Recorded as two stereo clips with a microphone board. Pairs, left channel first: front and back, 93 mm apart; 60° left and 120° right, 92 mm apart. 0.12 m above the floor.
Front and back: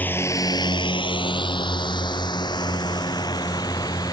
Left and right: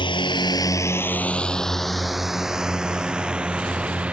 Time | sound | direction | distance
0.0 | a drone | 70° left | ?